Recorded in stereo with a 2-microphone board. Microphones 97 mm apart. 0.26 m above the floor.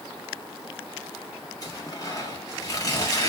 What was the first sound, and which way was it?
Tearing paper, 35° left (ahead or behind).